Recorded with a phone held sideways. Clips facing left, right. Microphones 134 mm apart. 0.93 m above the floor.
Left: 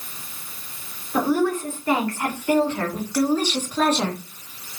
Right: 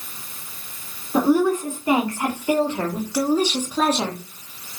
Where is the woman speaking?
20° right (ahead or behind), 3.5 m; by 4.2 s 5° right (ahead or behind), 1.6 m.